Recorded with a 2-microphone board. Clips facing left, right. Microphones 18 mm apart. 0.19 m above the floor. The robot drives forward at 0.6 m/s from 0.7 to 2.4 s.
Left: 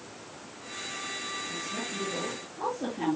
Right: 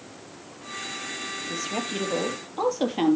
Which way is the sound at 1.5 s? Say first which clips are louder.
Right 5 dB; 75° right (ahead or behind).